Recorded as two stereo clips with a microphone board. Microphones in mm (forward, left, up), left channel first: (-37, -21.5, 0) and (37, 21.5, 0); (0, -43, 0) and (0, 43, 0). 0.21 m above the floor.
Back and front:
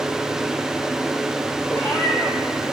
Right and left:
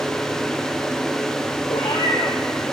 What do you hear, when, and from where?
1.7 s a cat meowing: 80° right, 4.5 m; by 2.7 s 70° right, 4 m